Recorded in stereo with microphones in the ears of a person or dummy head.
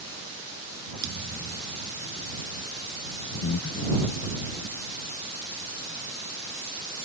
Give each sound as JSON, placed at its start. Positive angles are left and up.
{"t": 1.0, "sound": "a thud", "side_deg": -40}
{"t": 3.4, "sound": "breathing", "side_deg": 65}